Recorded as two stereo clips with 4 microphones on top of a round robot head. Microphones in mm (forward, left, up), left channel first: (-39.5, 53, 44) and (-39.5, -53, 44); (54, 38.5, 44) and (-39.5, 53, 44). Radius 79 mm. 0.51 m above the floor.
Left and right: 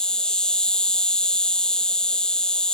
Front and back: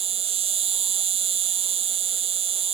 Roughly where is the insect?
Behind.